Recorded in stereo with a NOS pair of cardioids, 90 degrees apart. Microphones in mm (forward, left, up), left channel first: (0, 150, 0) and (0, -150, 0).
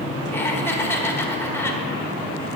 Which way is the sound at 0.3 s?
10° left.